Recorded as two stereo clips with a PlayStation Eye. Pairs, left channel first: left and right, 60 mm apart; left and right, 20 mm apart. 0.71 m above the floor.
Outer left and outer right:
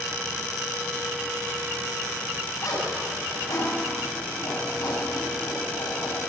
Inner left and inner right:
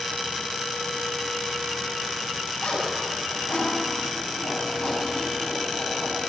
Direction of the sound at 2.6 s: 80° left.